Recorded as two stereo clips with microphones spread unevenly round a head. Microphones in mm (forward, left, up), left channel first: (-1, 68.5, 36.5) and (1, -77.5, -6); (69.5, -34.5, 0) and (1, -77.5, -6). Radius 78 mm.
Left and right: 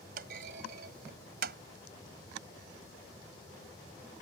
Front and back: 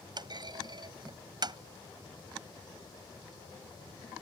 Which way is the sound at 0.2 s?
120° right.